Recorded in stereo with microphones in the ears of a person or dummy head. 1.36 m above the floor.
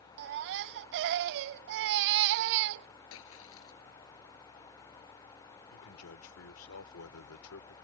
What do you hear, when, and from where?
0.2 s a baby crying: 55° right (ahead or behind)
3.1 s a splash: 80° left
5.7 s a man speaking: 80° left